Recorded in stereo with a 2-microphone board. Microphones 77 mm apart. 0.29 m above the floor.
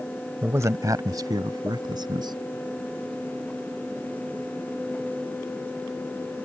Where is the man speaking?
30° right (ahead or behind); by 2.4 s 70° right (ahead or behind).